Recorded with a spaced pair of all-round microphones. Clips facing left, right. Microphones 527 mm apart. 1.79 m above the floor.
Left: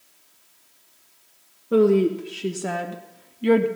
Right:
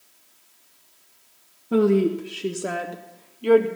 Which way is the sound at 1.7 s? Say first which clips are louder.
Left 1 dB; 15° right (ahead or behind).